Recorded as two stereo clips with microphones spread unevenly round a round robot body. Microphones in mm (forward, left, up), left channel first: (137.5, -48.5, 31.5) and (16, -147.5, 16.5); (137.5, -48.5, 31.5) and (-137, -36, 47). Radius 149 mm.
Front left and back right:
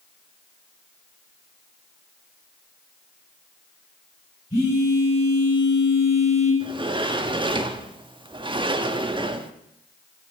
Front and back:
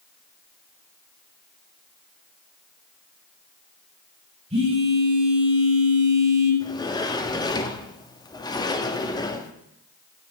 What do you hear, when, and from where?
4.5 s a phone buzzing: 110° left, 4 m
6.6 s a sliding door: 80° right, 0.8 m